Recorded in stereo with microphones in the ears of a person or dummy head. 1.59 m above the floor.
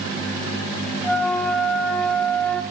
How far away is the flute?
About 1.6 m.